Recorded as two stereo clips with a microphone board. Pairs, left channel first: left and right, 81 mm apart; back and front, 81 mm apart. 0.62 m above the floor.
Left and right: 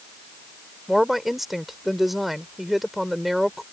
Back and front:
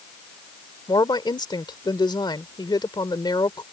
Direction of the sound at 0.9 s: 175° right.